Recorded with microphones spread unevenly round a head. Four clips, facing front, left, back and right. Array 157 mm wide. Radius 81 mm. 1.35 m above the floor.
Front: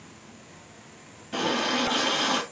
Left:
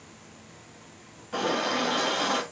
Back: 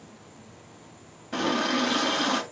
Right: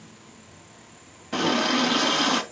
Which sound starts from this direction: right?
A running tap, at 1.3 s.